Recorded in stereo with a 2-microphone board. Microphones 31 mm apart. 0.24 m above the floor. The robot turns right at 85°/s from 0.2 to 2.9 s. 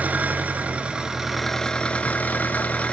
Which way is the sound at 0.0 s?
100° right.